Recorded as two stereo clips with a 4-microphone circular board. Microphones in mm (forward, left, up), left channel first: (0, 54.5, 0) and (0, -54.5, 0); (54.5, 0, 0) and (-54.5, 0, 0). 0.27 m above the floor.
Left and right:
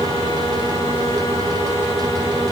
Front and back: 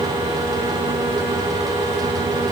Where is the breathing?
I don't hear breathing.